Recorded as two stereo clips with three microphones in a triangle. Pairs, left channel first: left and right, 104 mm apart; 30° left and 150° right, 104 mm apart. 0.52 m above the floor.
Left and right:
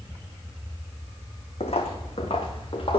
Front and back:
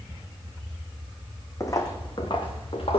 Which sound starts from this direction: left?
Footsteps, at 1.6 s.